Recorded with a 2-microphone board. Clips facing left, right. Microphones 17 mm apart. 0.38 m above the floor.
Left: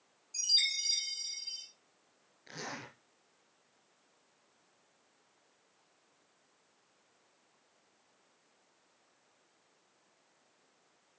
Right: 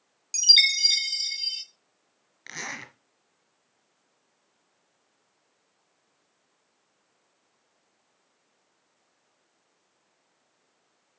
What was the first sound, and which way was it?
A chime, 75° right (ahead or behind).